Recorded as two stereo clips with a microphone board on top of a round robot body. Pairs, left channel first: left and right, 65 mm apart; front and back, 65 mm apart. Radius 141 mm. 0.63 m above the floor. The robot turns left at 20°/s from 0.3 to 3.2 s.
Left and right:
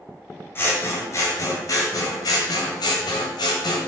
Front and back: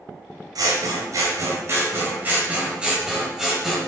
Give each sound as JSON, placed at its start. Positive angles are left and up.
{"t": 0.6, "sound": "scissors", "azimuth_deg": 150, "distance_m": 1.3}